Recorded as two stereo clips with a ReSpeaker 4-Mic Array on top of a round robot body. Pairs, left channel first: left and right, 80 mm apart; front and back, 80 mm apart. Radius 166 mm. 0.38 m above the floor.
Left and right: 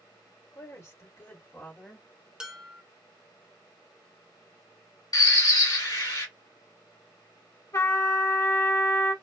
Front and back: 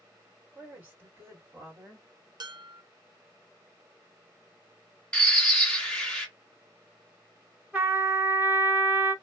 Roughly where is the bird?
Left.